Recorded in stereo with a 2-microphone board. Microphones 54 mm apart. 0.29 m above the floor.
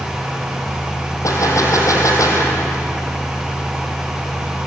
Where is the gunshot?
85° left, 4 m.